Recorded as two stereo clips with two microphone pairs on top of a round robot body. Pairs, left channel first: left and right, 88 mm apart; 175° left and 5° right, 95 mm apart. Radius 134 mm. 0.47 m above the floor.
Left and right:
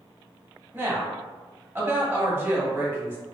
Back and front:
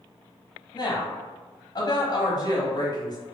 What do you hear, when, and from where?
0.7 s a woman speaking: 150° right, 1.0 m